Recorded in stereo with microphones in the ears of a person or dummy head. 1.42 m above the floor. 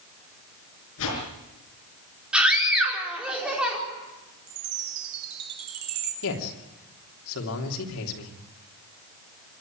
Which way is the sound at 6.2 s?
75° left (ahead or behind).